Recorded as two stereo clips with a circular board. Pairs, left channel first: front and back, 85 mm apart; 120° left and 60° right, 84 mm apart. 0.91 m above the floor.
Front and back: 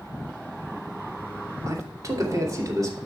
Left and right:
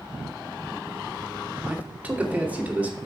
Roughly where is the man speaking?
Behind right.